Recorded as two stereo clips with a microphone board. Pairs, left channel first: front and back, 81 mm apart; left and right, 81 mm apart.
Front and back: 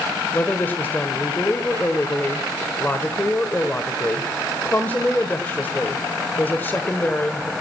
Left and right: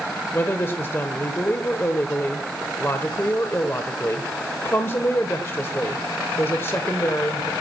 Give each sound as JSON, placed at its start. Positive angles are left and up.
{"t": 0.3, "sound": "a woman speaking", "azimuth_deg": 50, "distance_m": 1.3}